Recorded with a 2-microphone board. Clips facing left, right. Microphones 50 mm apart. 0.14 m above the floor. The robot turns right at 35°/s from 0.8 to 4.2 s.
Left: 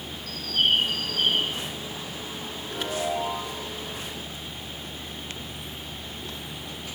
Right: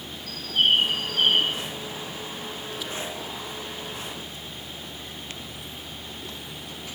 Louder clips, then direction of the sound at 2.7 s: Left 8 dB; 80° left.